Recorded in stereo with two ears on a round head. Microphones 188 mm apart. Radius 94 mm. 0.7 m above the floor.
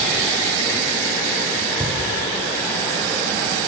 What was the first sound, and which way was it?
A cupboard door, 5° left (ahead or behind).